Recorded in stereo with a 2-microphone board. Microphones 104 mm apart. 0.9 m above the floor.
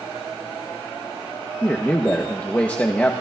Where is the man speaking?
15° left (ahead or behind), 0.7 m.